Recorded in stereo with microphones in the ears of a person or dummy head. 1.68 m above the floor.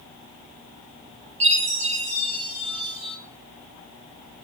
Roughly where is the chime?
Right.